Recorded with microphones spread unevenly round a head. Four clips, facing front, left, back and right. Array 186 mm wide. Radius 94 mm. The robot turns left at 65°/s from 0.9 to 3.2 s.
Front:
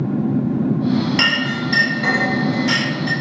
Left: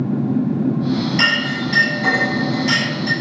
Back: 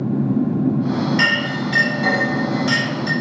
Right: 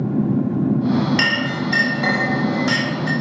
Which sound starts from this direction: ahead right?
A clink, at 1.2 s.